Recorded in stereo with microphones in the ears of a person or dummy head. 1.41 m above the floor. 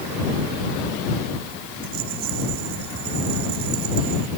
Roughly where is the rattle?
Right.